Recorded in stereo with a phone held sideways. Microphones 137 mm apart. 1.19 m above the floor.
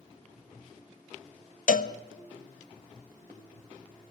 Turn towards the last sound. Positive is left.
turn(degrees=75)  # may be behind; listen again after turning